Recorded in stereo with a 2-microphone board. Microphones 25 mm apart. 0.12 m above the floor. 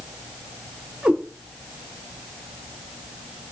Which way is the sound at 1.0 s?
80° right.